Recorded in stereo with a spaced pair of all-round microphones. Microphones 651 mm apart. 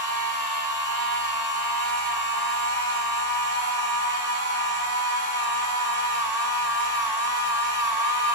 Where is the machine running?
45° left (ahead or behind), 5.5 m.